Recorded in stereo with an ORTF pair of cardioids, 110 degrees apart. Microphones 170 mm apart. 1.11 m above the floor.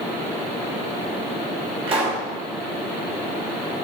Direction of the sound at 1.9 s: 35° right.